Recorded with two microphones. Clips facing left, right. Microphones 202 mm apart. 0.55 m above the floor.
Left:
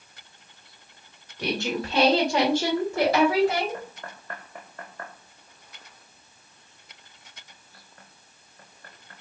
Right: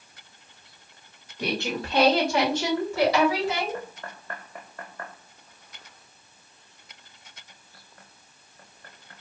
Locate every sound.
1.4 s a woman speaking: 5° right (ahead or behind), 1.5 m; by 3.8 s 55° left (ahead or behind), 1.7 m